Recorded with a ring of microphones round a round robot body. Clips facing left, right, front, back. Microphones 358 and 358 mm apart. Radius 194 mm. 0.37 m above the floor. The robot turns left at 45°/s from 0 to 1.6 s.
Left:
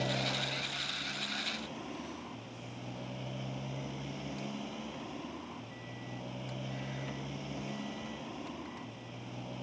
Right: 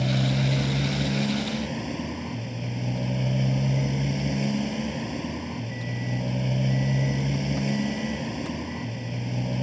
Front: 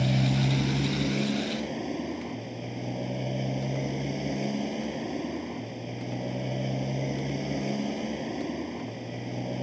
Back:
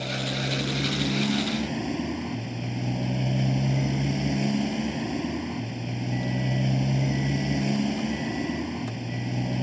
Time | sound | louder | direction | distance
0.0 | a motorcycle | right 11 dB, front 4 dB | 45° right | ?